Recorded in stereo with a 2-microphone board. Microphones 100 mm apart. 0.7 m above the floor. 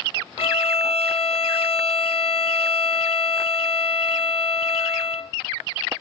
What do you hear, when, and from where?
0.4 s a violin: 60° left (ahead or behind), 1.0 m